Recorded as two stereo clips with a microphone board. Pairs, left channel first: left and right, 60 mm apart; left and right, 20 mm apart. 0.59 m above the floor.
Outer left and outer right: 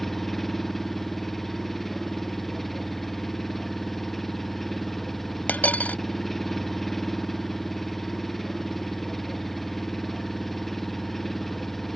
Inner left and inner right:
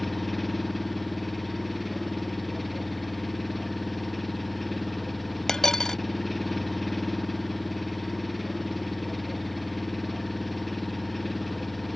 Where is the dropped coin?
25° left (ahead or behind).